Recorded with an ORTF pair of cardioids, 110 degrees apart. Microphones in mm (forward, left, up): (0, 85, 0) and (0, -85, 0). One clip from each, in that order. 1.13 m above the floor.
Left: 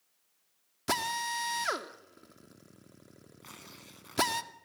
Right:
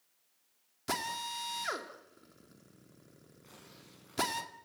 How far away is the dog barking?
No dog barking in this recording.